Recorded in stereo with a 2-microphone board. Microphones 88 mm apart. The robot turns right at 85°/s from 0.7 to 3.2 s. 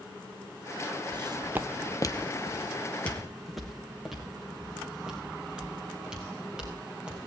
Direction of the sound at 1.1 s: 50° right (ahead or behind).